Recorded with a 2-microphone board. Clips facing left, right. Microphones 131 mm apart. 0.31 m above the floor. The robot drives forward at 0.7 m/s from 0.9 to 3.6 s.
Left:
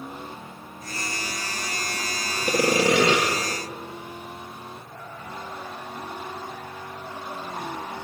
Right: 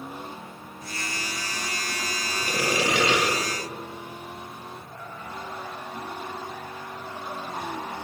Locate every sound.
2.5 s sawing: 40° left (ahead or behind), 4 m; by 3.2 s 45° left (ahead or behind), 4 m